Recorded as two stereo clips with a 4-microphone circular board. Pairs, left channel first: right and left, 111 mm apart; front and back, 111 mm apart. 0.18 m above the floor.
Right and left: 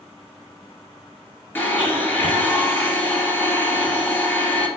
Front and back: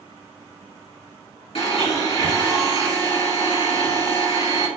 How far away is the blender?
About 3 m.